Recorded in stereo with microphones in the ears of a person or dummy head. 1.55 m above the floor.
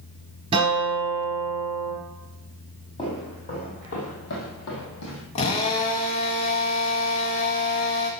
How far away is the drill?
About 1.2 m.